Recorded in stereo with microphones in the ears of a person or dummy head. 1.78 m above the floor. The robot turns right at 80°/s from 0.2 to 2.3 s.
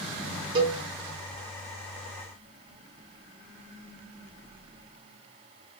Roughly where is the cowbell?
Right.